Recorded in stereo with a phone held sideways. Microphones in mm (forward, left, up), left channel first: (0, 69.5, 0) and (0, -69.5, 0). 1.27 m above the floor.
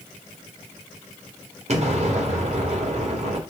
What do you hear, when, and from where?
1.7 s an explosion: 50° right (ahead or behind), 1.3 m